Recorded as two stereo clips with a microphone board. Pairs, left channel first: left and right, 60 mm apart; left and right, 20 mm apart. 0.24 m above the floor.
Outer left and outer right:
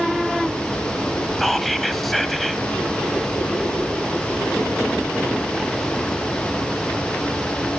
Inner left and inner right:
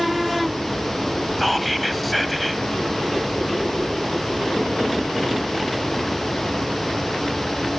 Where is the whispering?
5° left (ahead or behind), 1.0 m.